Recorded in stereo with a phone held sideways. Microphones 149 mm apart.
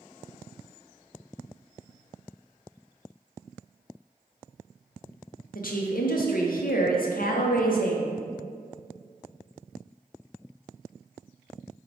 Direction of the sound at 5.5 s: 70° left (ahead or behind).